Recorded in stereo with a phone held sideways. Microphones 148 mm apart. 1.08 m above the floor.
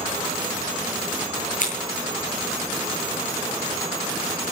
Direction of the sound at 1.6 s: 60° left (ahead or behind).